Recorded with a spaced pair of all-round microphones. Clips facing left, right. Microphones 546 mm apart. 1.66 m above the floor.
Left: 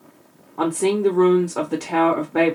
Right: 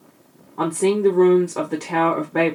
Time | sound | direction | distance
0.6 | a woman speaking | 5° left (ahead or behind) | 0.5 m